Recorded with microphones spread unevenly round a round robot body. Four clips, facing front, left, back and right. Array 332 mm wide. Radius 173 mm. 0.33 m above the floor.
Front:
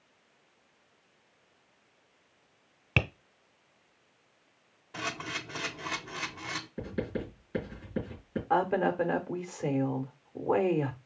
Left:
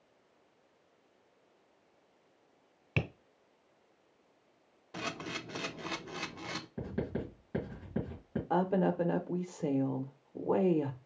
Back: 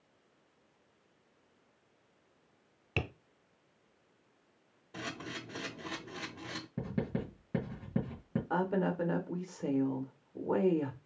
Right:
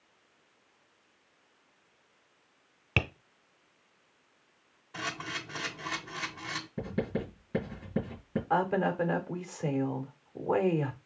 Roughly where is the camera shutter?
Left.